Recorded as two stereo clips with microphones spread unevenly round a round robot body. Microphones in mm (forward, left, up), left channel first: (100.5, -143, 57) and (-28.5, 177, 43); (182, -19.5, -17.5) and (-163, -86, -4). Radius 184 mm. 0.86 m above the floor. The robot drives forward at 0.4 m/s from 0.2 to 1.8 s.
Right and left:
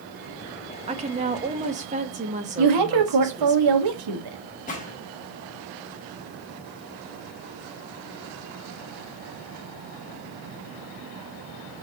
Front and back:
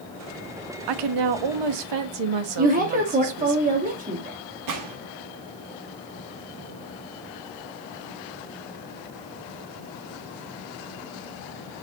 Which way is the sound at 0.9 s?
Straight behind.